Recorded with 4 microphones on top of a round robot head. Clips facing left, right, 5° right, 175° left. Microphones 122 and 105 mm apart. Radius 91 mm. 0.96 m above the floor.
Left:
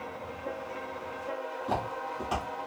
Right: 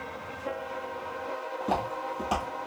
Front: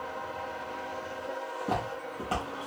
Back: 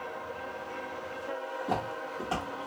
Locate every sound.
1.6 s footsteps: 70° right, 1.1 m